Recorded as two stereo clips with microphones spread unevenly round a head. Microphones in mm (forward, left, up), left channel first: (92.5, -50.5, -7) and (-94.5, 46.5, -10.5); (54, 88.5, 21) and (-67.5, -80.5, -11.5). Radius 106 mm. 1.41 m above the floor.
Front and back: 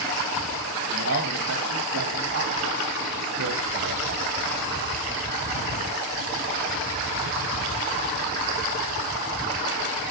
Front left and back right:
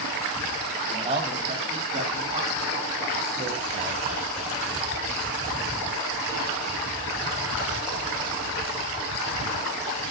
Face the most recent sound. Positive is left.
turn(degrees=175)